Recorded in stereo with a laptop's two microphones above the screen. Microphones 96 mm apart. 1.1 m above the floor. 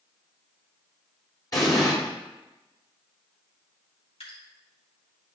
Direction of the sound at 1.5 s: 40° left (ahead or behind).